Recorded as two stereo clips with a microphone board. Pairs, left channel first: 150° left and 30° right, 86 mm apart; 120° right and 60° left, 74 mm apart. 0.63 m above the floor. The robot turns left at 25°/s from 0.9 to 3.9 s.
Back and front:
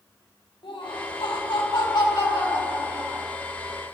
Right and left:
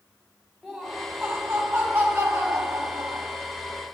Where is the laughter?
155° left, 4 m; by 3.3 s 95° left, 4 m.